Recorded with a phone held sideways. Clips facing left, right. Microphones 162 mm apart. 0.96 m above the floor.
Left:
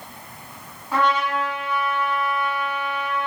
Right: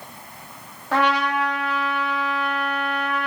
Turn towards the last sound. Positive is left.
turn(degrees=-75)  # may be behind; listen again after turning